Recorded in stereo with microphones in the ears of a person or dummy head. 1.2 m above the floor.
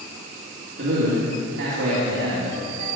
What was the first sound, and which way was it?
A man speaking, 75° right (ahead or behind).